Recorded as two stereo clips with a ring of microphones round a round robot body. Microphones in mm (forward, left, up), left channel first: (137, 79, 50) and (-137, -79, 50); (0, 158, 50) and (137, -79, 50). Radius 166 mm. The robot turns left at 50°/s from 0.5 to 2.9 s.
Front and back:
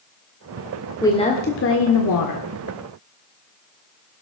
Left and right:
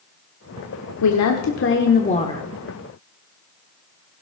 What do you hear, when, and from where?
1.0 s a woman speaking: 110° left, 1.5 m; by 2.4 s 40° left, 1.5 m